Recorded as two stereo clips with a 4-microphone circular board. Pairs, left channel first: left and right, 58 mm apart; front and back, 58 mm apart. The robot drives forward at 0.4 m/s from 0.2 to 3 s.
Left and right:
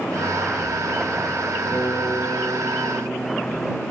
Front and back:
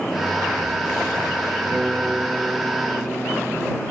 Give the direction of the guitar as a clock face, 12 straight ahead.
8 o'clock.